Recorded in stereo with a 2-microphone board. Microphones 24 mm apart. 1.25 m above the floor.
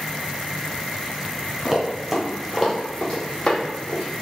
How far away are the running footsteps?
About 1.3 m.